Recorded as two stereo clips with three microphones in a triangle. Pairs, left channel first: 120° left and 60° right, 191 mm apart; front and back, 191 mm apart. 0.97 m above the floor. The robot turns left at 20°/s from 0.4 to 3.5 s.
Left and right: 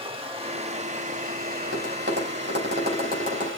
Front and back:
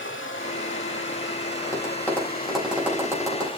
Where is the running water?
Straight ahead, 1.5 m; by 3.6 s 60° right, 1.5 m.